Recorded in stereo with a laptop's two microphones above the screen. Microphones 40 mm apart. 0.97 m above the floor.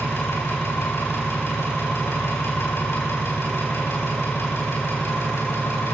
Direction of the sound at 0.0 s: 75° left (ahead or behind).